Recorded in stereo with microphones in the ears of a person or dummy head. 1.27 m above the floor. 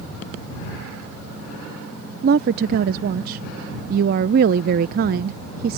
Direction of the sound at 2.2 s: 45° right (ahead or behind).